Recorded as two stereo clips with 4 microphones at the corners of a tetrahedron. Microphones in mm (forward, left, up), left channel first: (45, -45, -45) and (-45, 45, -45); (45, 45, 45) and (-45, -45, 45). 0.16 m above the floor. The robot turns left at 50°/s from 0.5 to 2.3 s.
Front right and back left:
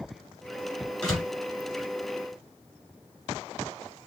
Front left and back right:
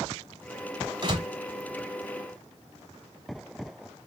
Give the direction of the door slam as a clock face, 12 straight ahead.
4 o'clock.